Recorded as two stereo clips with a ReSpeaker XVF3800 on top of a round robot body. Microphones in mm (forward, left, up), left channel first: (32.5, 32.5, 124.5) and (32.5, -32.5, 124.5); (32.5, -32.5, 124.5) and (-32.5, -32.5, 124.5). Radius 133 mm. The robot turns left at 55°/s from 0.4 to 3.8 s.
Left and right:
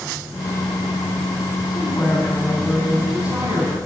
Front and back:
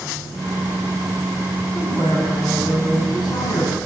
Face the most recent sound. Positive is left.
turn(degrees=-50)